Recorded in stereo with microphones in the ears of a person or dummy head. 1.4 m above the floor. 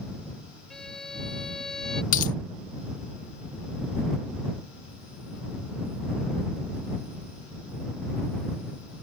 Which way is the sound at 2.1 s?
45° left (ahead or behind).